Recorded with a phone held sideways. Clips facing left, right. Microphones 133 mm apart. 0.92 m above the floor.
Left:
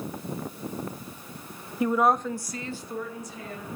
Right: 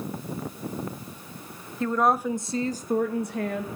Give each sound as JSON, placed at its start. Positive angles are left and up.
{"t": 1.8, "sound": "a woman speaking", "side_deg": 15, "distance_m": 0.9}